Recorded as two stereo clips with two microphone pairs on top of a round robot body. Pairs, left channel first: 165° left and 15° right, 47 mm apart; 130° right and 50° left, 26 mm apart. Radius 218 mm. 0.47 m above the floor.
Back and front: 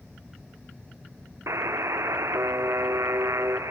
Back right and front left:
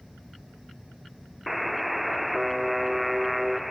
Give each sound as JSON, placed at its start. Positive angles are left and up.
{"t": 1.5, "sound": "a buzzer", "azimuth_deg": -40, "distance_m": 0.6}